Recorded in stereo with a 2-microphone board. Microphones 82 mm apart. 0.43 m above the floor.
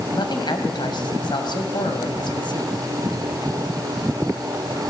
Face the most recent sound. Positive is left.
turn(degrees=65)  # may be behind; listen again after turning